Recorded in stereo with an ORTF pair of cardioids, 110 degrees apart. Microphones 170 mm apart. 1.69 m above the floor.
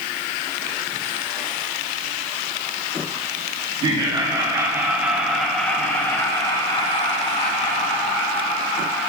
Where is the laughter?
30° right, 1.9 m; by 9.1 s 55° left, 2.5 m.